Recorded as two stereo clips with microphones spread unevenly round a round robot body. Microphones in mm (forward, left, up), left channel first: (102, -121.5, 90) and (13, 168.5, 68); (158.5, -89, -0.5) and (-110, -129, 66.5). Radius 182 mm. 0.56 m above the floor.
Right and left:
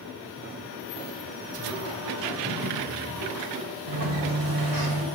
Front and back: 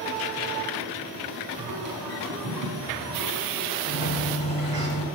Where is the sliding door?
110° left, 1.7 m.